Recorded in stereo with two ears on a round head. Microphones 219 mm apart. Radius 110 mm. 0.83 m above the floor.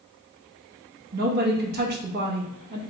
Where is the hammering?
I don't hear hammering.